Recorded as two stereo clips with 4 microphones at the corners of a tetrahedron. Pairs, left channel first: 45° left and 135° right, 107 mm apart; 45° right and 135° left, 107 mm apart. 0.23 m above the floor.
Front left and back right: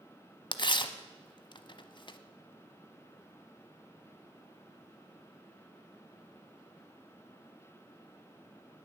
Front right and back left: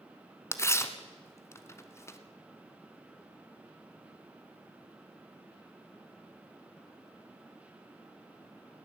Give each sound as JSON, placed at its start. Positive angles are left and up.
{"t": 0.5, "sound": "tearing paper", "azimuth_deg": 15, "distance_m": 1.0}